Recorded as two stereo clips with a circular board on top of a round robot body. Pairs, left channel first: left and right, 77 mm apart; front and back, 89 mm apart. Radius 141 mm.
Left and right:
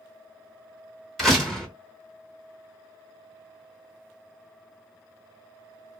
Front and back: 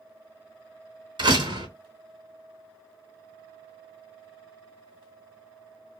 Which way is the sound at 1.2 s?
175° left.